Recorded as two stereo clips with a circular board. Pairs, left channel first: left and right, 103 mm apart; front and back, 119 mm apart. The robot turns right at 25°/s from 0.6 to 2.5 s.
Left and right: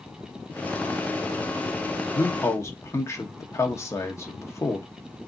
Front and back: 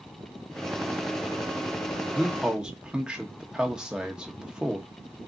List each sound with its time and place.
2.1 s a man speaking: 95° left, 0.9 m; by 4.9 s 105° left, 0.9 m